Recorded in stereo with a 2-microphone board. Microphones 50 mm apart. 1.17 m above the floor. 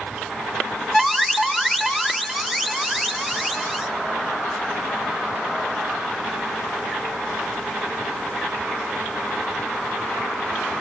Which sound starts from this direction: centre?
An alarm, at 0.9 s.